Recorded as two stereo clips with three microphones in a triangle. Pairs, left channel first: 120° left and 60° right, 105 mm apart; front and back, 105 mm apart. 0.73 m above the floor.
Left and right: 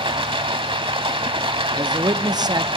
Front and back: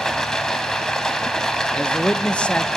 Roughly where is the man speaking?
Right.